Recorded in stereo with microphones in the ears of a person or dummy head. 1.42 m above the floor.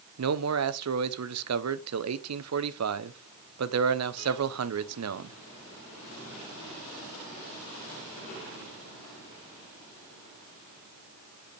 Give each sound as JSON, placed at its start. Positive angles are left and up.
{"t": 0.2, "sound": "a man speaking", "side_deg": -75, "distance_m": 0.7}